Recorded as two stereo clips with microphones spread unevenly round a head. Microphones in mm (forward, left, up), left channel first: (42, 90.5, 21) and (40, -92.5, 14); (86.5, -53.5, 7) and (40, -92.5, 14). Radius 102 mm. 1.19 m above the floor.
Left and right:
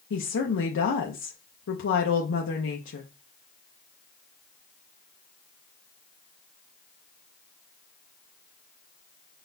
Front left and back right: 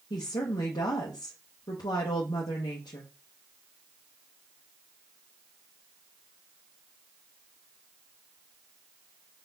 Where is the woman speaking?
65° left, 0.8 m.